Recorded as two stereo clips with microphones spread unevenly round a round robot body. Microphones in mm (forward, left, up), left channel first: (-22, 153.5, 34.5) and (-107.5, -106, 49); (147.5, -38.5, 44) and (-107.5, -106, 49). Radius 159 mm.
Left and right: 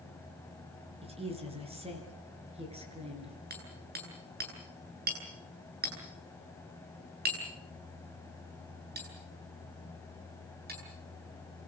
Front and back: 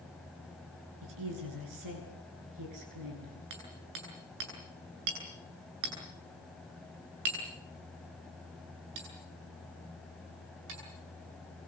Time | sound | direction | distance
1.0 | a woman speaking | straight behind | 9.5 m
3.5 | hammering | 165° right | 9.5 m